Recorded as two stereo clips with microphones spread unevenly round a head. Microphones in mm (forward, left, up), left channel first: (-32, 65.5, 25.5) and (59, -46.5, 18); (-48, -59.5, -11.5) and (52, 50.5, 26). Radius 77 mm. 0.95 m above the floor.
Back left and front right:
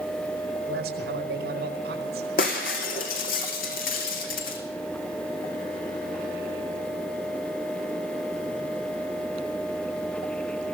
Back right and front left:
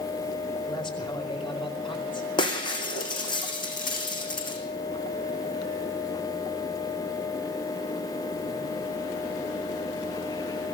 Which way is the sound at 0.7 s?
75° right.